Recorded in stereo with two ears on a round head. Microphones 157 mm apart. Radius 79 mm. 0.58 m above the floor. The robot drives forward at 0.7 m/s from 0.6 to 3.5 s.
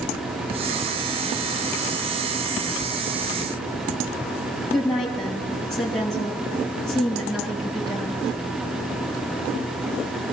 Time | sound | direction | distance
4.7 | a woman speaking | centre (ahead or behind) | 8.5 m